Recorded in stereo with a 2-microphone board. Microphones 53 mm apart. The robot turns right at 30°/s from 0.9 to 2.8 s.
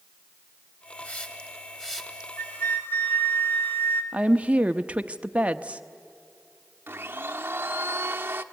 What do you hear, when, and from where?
1.0 s a hiss: 35° left (ahead or behind), 1.9 m; by 2.3 s centre (ahead or behind), 1.9 m
2.4 s a flute: 55° left (ahead or behind), 1.6 m; by 4.0 s 45° left (ahead or behind), 1.6 m
4.1 s a woman speaking: 25° right (ahead or behind), 0.7 m
6.9 s a blender: 40° right (ahead or behind), 0.9 m